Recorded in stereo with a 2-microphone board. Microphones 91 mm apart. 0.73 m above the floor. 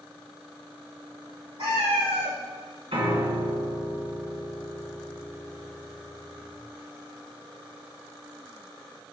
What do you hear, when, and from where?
1.6 s a cat meowing: 70° right (ahead or behind), 2.5 m
2.9 s a piano: 75° right (ahead or behind), 2.0 m